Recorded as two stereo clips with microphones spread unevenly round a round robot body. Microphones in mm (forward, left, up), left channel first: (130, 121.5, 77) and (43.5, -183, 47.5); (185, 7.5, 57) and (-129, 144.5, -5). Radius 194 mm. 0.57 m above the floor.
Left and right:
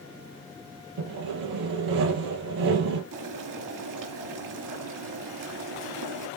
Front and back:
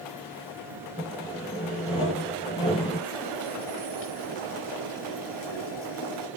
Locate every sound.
1.0 s sawing: 100° right, 3.5 m
3.1 s boiling: 85° right, 3 m